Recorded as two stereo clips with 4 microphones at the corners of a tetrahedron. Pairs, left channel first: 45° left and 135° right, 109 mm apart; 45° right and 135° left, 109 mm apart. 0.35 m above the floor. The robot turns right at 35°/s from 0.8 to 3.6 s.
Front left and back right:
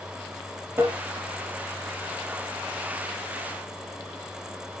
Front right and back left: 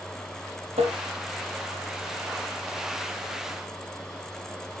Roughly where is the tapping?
Behind left.